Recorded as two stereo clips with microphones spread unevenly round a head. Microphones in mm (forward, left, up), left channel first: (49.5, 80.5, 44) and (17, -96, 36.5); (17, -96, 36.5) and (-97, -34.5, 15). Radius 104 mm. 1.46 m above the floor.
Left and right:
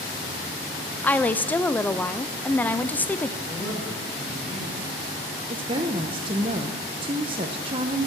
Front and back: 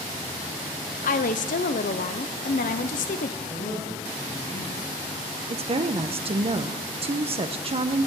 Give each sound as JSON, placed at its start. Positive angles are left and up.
{"t": 1.0, "sound": "a woman speaking", "azimuth_deg": 0, "distance_m": 0.7}
{"t": 3.4, "sound": "a woman speaking", "azimuth_deg": -20, "distance_m": 8.5}
{"t": 5.5, "sound": "a woman speaking", "azimuth_deg": -165, "distance_m": 0.8}